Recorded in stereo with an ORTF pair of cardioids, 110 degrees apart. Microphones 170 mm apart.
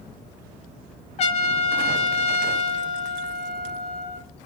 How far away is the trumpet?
About 0.5 m.